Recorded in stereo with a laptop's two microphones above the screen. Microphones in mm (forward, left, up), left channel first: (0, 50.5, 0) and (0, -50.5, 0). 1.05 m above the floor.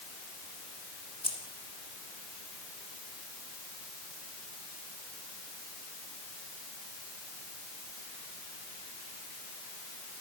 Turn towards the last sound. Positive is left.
turn(degrees=60)  # may be behind; listen again after turning